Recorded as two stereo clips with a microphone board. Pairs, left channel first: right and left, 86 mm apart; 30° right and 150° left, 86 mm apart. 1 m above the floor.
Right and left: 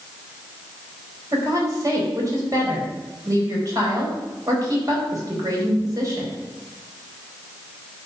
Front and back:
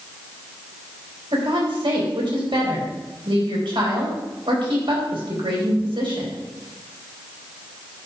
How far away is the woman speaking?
About 4 m.